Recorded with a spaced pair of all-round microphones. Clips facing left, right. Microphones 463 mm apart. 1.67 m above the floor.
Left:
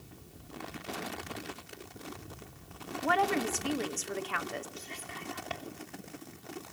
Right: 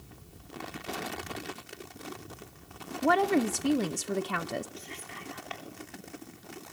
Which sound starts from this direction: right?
A woman speaking, at 3.0 s.